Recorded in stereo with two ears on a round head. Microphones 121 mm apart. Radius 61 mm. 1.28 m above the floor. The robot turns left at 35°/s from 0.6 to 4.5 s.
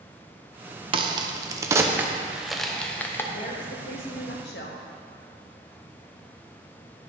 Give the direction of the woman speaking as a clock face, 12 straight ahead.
8 o'clock.